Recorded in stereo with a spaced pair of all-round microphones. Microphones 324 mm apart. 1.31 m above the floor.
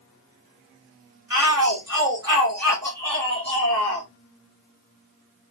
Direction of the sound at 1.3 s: 65° right (ahead or behind).